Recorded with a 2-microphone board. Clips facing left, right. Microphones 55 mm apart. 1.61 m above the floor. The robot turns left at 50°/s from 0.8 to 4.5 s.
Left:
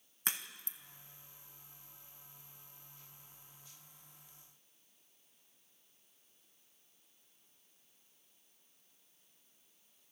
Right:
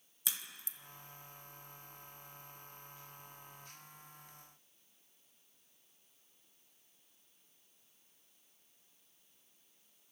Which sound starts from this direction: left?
A crack, at 0.2 s.